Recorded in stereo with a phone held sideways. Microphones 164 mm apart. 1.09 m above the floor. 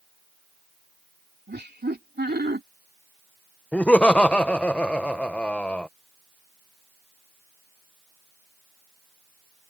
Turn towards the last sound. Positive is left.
turn(degrees=5)  # may be behind; listen again after turning